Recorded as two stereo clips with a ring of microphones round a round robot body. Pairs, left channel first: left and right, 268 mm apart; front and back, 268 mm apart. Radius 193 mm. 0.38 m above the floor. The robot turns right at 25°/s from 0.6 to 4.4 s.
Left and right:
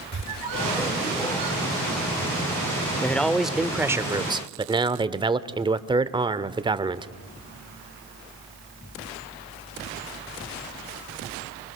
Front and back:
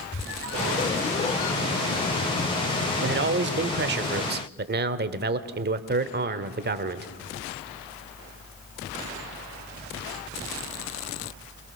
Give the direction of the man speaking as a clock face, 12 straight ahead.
6 o'clock.